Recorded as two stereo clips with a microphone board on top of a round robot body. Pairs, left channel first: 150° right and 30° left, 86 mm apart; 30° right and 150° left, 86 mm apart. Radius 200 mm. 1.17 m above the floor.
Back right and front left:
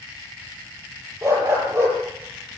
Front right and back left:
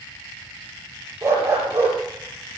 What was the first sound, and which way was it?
A dog barking, 90° left.